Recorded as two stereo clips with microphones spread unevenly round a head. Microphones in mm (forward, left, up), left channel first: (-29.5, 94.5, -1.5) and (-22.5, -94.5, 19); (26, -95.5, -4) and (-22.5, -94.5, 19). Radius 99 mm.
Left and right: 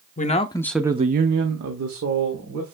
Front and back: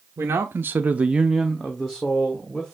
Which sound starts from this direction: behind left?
A man speaking, at 0.2 s.